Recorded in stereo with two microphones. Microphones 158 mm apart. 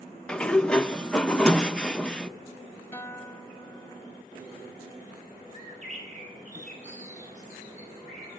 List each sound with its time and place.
0.3 s a sliding door: 5° left (ahead or behind), 0.7 m
2.9 s a guitar: 15° left (ahead or behind), 1.5 m
5.5 s a bird: 50° right (ahead or behind), 8.5 m